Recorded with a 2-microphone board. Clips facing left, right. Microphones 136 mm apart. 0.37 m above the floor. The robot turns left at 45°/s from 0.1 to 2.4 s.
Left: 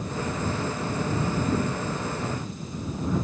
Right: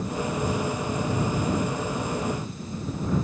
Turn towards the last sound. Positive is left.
No sound to turn to.